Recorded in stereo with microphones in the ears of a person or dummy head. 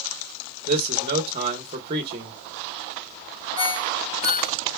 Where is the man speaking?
35° right (ahead or behind), 0.7 m.